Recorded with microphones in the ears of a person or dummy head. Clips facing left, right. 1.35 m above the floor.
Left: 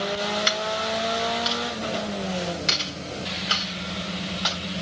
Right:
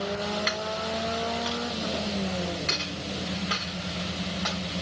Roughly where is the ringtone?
No ringtone in this recording.